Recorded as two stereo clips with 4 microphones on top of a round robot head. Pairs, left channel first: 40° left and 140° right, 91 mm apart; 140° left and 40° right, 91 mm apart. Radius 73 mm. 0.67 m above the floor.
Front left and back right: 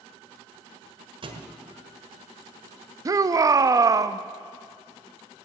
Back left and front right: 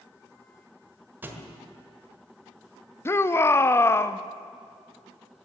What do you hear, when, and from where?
1.2 s a thud: 105° right, 1.6 m
3.0 s a shout: 165° right, 0.6 m